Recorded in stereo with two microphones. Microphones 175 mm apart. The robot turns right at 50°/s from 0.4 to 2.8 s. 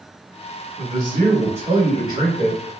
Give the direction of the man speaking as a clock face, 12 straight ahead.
3 o'clock.